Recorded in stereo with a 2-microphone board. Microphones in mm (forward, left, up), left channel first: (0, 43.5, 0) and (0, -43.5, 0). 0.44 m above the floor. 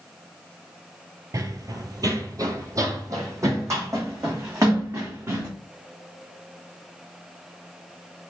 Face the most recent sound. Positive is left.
turn(degrees=-35)  # may be behind; listen again after turning